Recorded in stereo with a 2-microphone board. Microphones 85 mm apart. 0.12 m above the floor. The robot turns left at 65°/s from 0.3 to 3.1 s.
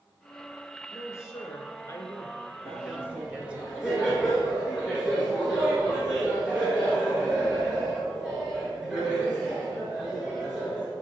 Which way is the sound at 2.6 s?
25° right (ahead or behind).